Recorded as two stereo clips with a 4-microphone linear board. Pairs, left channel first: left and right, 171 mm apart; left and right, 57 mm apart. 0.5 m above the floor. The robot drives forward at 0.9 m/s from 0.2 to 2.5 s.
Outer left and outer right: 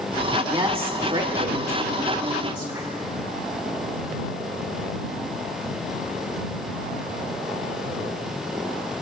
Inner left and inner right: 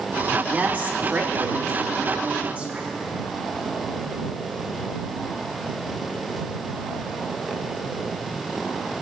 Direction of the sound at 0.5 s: 30° right (ahead or behind).